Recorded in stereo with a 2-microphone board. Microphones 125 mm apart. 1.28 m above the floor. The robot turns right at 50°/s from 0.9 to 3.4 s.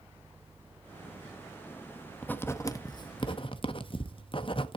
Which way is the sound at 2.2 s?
10° left (ahead or behind).